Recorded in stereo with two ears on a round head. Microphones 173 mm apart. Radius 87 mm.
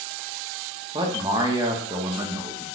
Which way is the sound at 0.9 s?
25° right (ahead or behind).